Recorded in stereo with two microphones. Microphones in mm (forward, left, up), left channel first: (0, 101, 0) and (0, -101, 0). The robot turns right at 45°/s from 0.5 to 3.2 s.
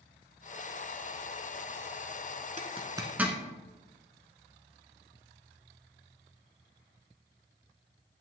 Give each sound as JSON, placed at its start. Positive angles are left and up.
{"t": 2.6, "sound": "a zipper", "side_deg": -35, "distance_m": 1.1}